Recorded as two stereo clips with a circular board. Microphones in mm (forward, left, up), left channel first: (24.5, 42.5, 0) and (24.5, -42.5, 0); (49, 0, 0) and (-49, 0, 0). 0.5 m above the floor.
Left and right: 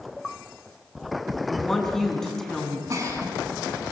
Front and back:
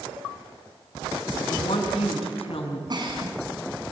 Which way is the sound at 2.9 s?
140° right.